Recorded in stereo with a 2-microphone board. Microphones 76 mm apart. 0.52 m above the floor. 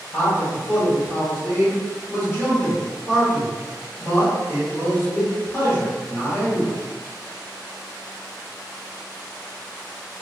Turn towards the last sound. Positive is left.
turn(degrees=30)  # may be behind; listen again after turning